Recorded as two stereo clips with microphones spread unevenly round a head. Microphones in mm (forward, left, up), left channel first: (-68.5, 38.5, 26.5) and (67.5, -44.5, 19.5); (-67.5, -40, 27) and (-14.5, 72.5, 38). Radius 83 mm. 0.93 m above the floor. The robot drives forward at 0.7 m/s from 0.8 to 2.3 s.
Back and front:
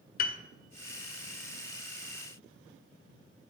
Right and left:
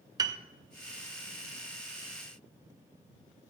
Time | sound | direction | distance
0.2 | a piano | 120° left | 0.6 m